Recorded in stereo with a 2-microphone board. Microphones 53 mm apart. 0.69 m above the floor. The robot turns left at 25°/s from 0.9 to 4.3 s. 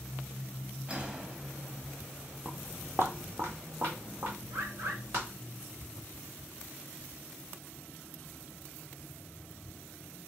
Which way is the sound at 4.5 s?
70° right (ahead or behind).